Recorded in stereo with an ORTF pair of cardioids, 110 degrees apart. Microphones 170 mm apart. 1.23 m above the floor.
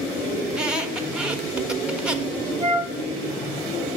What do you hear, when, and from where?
0.5 s a squeak: 5° right, 0.7 m
2.6 s a flute: 25° right, 1.0 m